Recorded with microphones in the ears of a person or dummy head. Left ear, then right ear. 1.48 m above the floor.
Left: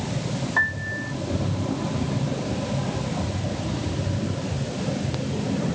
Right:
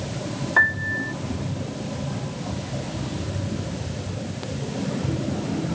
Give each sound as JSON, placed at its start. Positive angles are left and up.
{"t": 0.6, "sound": "a piano", "side_deg": -50}